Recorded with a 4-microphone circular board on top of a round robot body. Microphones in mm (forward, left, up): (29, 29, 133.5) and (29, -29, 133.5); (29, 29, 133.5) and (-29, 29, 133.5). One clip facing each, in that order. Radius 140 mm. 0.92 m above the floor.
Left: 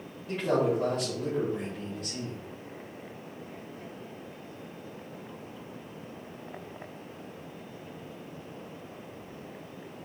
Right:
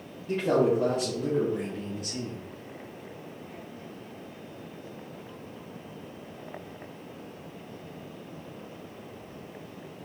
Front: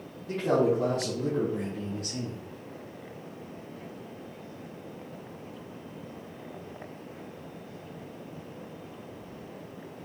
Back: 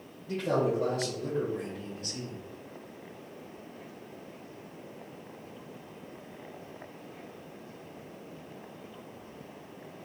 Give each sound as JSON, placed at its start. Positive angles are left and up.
{"t": 0.3, "sound": "a man speaking", "azimuth_deg": -5, "distance_m": 3.5}